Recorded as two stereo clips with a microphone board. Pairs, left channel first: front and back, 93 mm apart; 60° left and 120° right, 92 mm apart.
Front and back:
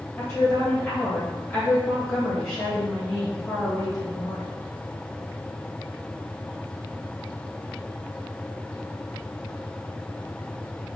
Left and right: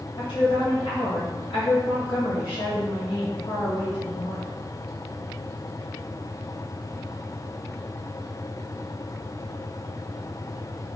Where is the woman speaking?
75° left, 1.5 m.